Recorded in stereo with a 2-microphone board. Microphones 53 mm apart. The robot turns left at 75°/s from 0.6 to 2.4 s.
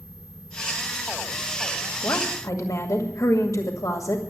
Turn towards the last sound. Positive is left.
turn(degrees=80)